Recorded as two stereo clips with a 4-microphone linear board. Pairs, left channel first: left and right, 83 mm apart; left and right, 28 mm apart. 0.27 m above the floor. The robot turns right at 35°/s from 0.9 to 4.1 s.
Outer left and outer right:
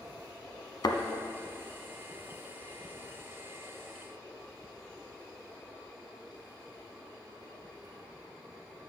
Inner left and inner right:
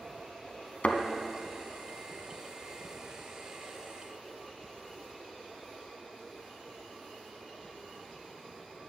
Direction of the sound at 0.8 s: 55° left (ahead or behind).